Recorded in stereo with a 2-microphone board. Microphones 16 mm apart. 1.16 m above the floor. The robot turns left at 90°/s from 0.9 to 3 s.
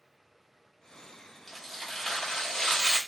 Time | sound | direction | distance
1.5 | tearing paper | 175° right | 1.2 m